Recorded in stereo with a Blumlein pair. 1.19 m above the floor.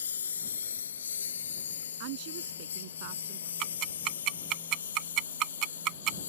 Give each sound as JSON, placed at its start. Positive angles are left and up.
{"t": 0.0, "sound": "a lawn mower", "azimuth_deg": 70}
{"t": 2.0, "sound": "a woman speaking", "azimuth_deg": -45}
{"t": 3.6, "sound": "ticking", "azimuth_deg": -35}